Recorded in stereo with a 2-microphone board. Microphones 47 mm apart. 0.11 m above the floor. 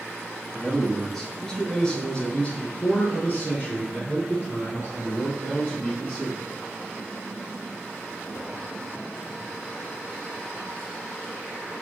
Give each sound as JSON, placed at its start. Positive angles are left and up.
{"t": 0.5, "sound": "a man speaking", "side_deg": 5, "distance_m": 1.7}